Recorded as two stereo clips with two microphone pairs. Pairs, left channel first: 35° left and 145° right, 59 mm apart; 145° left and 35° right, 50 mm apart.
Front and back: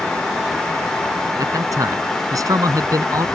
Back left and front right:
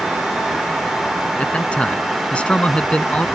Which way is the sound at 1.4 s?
150° right.